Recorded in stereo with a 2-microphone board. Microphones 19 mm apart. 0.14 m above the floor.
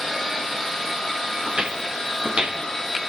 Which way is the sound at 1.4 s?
90° right.